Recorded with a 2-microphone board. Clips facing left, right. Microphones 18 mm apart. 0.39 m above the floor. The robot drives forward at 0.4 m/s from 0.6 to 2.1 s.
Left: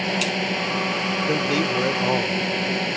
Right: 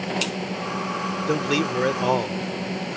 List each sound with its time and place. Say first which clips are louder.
0.0 s a drone: left 4 dB; 35° left (ahead or behind)
1.3 s a man speaking: right 1 dB; 25° right (ahead or behind)